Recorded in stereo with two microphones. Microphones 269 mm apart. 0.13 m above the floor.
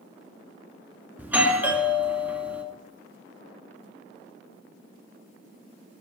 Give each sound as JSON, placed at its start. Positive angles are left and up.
{"t": 1.2, "sound": "a doorbell", "side_deg": -5, "distance_m": 1.9}